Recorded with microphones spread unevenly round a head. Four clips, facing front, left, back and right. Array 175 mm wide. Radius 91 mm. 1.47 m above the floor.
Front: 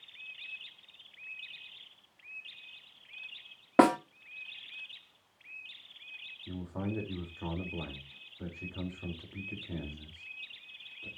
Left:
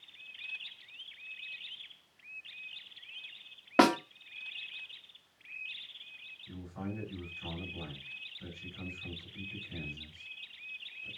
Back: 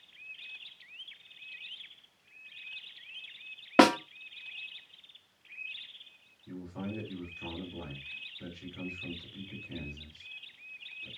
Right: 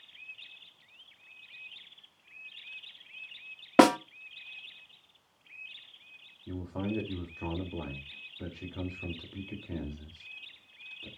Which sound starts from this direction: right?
A snare drum, at 3.8 s.